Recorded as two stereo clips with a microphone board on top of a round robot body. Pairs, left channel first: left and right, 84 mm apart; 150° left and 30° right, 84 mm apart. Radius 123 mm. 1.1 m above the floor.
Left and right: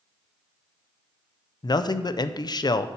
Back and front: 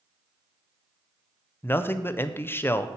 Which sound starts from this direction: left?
A man speaking, at 1.6 s.